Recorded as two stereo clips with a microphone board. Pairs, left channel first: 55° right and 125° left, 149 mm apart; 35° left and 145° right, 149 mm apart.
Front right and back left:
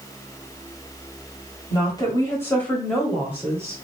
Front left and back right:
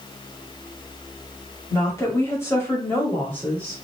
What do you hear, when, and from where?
1.7 s a woman speaking: 25° right, 1.3 m; by 3.8 s 100° left, 1.1 m